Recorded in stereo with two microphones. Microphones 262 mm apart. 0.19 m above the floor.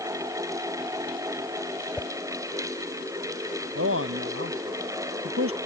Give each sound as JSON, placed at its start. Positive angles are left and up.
{"t": 2.0, "sound": "a whoosh", "side_deg": 5}
{"t": 3.8, "sound": "a man speaking", "side_deg": -55}